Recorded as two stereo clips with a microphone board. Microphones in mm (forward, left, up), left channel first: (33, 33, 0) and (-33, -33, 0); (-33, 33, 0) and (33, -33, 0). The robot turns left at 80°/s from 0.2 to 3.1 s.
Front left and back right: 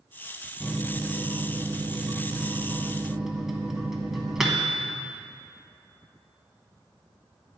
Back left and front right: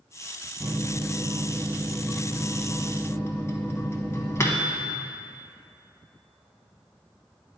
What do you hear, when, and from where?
0.6 s a microwave: 15° right, 0.8 m; by 5.1 s 145° left, 0.8 m